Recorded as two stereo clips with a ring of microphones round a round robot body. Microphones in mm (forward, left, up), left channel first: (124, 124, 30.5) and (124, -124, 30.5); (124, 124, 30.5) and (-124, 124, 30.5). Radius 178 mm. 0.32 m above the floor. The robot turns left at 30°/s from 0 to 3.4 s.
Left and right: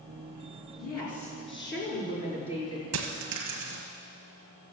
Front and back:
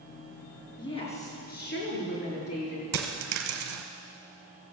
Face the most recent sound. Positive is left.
turn(degrees=-150)